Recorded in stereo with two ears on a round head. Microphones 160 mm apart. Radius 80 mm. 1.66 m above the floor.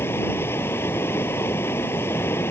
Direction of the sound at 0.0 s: 15° left (ahead or behind).